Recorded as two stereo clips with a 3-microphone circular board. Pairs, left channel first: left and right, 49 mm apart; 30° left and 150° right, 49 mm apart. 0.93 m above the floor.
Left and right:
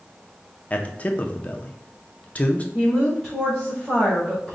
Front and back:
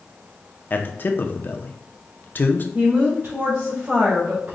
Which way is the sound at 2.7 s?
Straight behind.